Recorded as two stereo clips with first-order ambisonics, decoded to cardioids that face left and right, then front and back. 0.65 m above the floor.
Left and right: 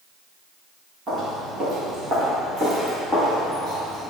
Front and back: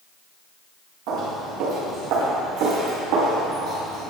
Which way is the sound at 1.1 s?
155° right.